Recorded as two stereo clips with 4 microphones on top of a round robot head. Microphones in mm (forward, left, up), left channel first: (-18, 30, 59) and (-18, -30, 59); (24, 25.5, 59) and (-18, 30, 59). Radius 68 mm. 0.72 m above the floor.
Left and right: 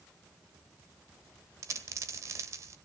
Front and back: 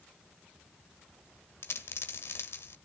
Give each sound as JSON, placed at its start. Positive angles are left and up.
{"t": 1.6, "sound": "a dropped coin", "azimuth_deg": -45, "distance_m": 1.3}